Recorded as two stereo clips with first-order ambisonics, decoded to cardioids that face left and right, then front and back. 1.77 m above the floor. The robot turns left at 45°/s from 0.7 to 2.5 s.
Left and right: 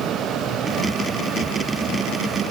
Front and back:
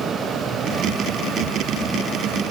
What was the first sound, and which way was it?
Only background noise.